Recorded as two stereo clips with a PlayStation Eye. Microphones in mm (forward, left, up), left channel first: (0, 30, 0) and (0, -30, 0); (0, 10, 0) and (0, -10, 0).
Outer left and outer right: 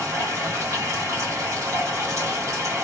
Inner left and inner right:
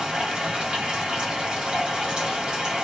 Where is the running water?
55° right (ahead or behind), 1.4 m.